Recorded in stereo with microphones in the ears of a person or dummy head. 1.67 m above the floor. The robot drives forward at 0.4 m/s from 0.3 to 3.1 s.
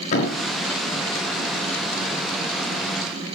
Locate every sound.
0.1 s a thud: 45° left (ahead or behind), 5 m